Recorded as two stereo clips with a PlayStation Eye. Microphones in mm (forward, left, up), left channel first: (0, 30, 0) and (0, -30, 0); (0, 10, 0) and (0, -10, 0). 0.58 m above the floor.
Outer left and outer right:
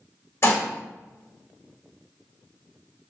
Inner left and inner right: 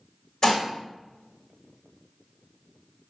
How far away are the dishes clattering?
About 1.2 m.